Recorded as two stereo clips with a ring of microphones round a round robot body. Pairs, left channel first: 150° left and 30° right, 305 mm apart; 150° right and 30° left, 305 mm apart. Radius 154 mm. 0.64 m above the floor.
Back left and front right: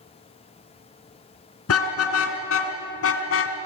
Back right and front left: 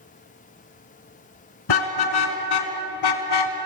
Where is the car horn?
165° right, 3.5 m; by 3.6 s 160° right, 2.5 m.